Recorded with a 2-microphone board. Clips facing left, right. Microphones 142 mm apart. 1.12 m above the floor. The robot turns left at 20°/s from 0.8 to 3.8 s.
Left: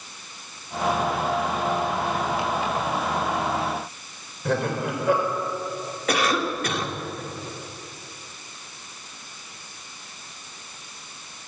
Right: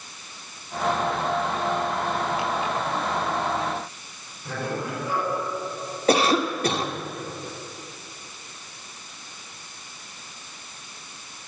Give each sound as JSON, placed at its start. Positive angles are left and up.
{"t": 4.5, "sound": "laughter", "side_deg": 80, "distance_m": 4.5}
{"t": 6.1, "sound": "a cough", "side_deg": -30, "distance_m": 2.5}